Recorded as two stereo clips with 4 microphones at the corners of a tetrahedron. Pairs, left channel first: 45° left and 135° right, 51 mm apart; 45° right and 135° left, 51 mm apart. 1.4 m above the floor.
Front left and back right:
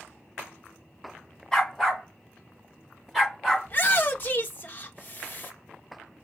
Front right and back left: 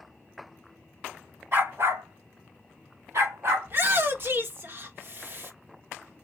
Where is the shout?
95° left, 1.1 m.